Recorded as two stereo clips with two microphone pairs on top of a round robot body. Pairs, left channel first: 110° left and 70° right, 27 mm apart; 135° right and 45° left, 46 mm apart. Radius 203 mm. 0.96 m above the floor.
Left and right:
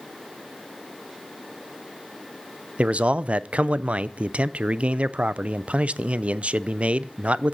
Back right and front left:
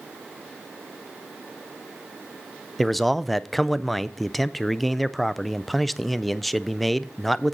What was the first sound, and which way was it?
A man speaking, 55° right.